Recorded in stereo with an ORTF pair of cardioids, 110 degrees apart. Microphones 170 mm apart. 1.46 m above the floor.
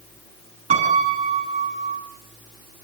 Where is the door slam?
I don't hear a door slam.